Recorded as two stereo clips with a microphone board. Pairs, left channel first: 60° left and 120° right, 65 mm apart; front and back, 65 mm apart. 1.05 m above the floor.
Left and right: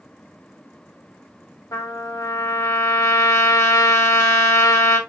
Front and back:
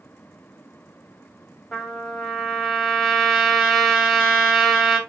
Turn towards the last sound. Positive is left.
turn(degrees=80)